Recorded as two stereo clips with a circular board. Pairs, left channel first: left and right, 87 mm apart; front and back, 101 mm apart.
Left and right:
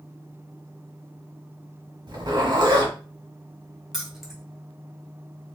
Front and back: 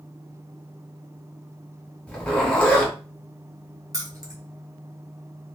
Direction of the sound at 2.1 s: 75° right.